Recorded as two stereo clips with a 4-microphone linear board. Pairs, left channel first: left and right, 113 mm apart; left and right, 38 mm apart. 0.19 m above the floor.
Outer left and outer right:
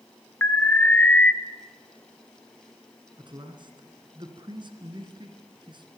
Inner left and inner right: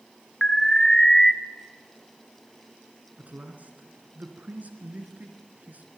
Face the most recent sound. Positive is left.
turn(degrees=-45)  # may be behind; listen again after turning